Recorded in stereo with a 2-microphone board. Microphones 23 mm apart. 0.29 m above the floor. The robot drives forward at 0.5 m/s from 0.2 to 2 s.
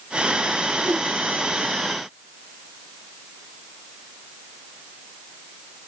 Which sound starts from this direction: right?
A whoosh, at 0.8 s.